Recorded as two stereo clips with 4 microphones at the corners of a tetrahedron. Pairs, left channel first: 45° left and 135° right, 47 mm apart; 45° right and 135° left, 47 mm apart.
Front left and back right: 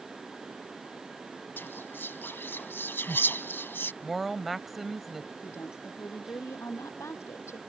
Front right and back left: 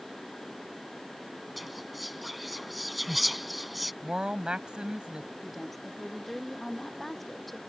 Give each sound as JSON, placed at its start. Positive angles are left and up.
{"t": 1.6, "sound": "whispering", "azimuth_deg": 45}
{"t": 4.0, "sound": "a woman speaking", "azimuth_deg": 140}
{"t": 5.4, "sound": "a woman speaking", "azimuth_deg": 40}